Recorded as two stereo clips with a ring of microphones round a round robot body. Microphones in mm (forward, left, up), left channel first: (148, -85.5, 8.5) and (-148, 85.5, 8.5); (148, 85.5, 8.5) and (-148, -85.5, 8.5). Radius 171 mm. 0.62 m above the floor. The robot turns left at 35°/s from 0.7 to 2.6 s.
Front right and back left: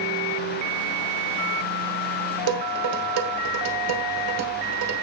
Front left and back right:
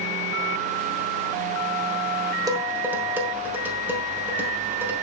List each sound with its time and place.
2.5 s dishes clattering: 130° left, 2 m; by 4.9 s 125° left, 2 m